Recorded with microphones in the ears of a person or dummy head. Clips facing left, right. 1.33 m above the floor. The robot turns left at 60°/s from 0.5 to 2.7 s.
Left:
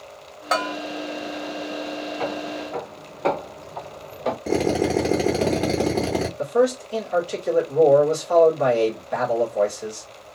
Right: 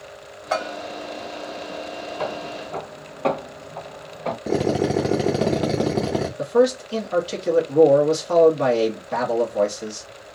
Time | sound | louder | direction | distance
0.5 | a bell | even | 55° left (ahead or behind) | 1.6 m
2.2 | footsteps | right 1 dB | 20° right (ahead or behind) | 1.4 m
4.5 | a drill | right 1 dB | 10° right (ahead or behind) | 0.6 m
6.4 | a man speaking | right 2 dB | 50° right (ahead or behind) | 1.0 m